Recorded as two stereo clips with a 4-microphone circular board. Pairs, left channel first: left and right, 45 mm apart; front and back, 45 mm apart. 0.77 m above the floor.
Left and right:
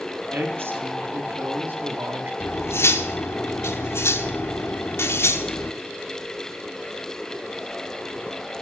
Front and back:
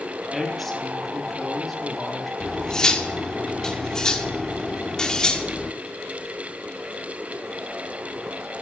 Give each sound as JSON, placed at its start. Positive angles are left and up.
{"t": 0.3, "sound": "a woman speaking", "azimuth_deg": -85, "distance_m": 1.8}
{"t": 2.4, "sound": "cutlery clinking", "azimuth_deg": 75, "distance_m": 0.9}